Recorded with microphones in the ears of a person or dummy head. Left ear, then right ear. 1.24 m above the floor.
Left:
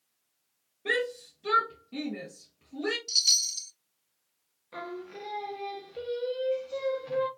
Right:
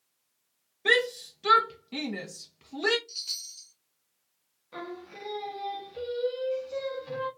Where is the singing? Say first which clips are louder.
Left 1 dB; 5° left (ahead or behind), 0.9 m.